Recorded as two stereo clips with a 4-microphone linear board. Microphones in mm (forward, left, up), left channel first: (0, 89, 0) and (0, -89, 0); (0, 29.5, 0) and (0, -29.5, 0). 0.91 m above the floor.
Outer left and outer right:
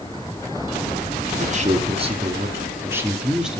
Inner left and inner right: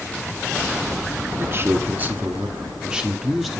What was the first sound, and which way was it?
A man speaking, 45° right (ahead or behind).